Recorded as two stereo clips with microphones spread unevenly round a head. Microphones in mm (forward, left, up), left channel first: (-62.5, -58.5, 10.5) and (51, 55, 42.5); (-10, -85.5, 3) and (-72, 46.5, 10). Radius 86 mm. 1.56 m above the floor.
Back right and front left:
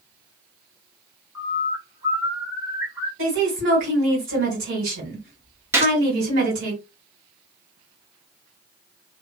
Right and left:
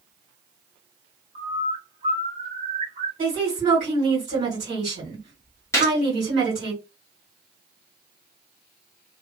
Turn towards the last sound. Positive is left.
turn(degrees=0)